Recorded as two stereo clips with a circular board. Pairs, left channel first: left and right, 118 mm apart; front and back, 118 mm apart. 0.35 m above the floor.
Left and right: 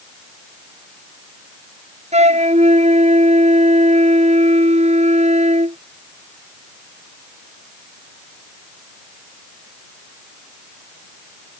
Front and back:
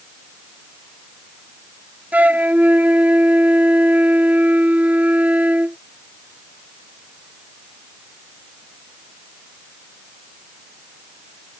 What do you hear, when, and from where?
2.1 s a flute: 105° right